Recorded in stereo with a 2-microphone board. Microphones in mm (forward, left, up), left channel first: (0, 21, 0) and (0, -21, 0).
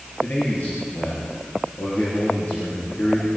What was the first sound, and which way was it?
A man speaking, 45° left (ahead or behind).